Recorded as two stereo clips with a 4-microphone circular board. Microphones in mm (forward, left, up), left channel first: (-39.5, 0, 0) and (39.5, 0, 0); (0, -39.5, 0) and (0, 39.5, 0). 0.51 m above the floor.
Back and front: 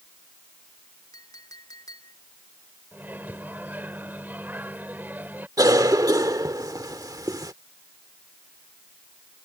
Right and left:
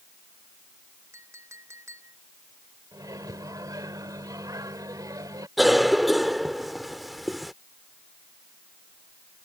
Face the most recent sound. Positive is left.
turn(degrees=0)